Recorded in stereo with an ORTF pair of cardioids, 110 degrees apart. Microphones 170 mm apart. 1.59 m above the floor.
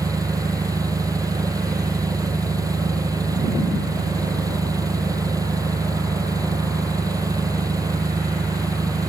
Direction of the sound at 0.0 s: 20° right.